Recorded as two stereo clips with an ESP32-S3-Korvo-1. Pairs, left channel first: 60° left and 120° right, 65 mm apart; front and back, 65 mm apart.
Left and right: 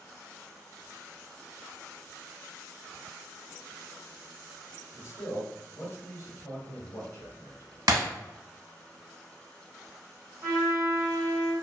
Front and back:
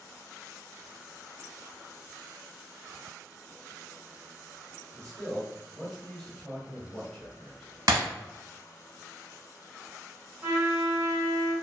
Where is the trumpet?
165° right, 1.5 m.